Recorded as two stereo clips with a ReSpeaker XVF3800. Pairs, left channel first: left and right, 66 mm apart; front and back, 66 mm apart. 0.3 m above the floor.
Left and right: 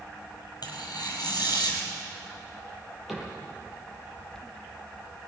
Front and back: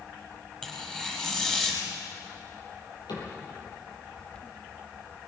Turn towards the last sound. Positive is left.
turn(degrees=0)